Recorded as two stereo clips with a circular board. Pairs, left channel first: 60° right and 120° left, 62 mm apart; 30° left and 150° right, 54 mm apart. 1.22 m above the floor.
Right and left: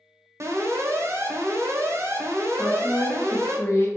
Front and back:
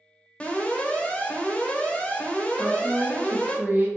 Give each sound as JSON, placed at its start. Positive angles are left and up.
{"t": 0.4, "sound": "an alarm", "azimuth_deg": 95, "distance_m": 0.8}
{"t": 2.6, "sound": "a woman speaking", "azimuth_deg": -105, "distance_m": 1.1}